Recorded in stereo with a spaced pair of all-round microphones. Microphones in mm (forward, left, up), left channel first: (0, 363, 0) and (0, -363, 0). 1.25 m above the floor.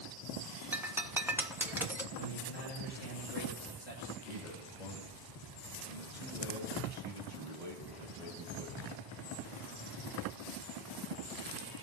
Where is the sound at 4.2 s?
80° left, 3.5 m.